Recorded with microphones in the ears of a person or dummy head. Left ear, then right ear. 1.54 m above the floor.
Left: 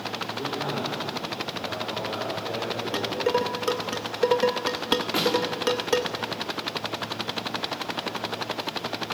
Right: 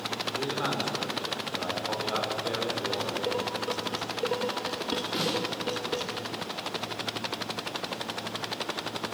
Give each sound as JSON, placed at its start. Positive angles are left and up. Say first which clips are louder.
{"t": 0.4, "sound": "a man speaking", "louder": "even", "side_deg": -75, "distance_m": 6.5}
{"t": 2.9, "sound": "dishes clattering", "louder": "left 5 dB", "side_deg": 35, "distance_m": 1.0}
{"t": 5.1, "sound": "a snare drum", "louder": "left 6 dB", "side_deg": 35, "distance_m": 5.0}